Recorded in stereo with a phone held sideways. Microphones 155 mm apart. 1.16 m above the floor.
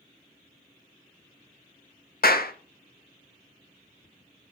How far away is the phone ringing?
No phone ringing in this recording.